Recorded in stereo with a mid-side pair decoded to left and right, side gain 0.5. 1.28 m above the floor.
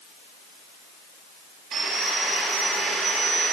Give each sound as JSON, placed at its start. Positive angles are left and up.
{"t": 1.7, "sound": "sawing", "azimuth_deg": -65, "distance_m": 6.0}